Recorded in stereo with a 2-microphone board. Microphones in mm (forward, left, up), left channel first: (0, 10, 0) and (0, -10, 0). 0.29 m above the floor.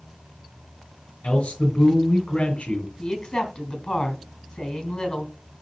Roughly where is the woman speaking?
Left.